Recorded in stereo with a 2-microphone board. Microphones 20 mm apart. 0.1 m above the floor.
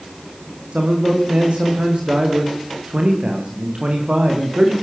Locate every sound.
0.7 s a man speaking: 70° right (ahead or behind), 9.5 m